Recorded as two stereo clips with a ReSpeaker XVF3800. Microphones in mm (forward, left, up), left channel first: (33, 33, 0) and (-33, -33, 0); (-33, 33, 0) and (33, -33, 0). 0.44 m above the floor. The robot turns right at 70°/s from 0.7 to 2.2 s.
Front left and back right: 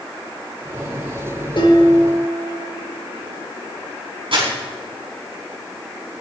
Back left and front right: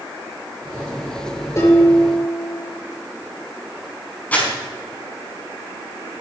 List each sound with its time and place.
1.6 s dishes clattering: 75° left, 5.5 m; by 2.6 s 120° left, 5.5 m
4.3 s crumpling: 150° right, 4.5 m